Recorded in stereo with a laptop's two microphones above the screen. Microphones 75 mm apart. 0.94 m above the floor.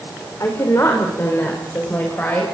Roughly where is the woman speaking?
Left.